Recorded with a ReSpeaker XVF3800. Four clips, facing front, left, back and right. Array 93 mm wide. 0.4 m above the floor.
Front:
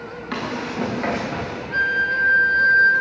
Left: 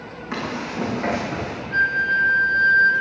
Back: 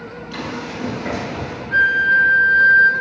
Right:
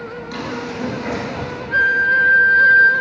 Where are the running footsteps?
30° left, 8.5 m; by 1.6 s 25° left, 7.5 m.